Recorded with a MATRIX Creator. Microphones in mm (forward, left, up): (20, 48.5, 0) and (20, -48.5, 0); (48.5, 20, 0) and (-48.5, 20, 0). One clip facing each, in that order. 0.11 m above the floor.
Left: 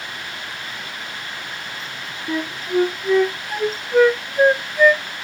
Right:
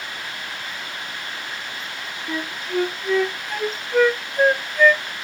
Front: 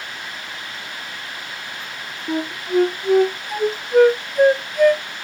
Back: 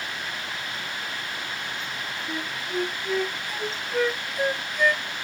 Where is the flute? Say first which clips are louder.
Left 4 dB, front 12 dB; 10° left.